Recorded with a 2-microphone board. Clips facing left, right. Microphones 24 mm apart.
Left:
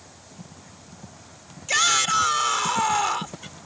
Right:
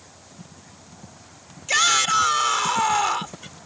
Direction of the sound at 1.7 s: 5° right (ahead or behind).